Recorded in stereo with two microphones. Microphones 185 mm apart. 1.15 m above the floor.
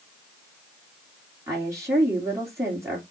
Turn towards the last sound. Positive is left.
turn(degrees=-15)  # may be behind; listen again after turning